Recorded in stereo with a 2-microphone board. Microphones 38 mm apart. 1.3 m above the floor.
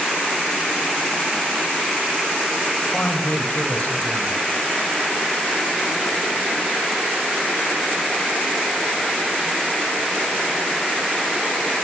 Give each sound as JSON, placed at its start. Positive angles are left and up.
{"t": 2.9, "sound": "a woman speaking", "side_deg": 40, "distance_m": 6.0}